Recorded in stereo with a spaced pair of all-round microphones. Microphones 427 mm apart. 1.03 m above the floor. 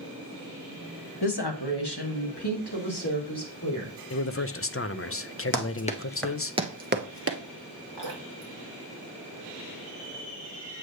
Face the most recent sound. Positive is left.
turn(degrees=75)  # may be behind; listen again after turning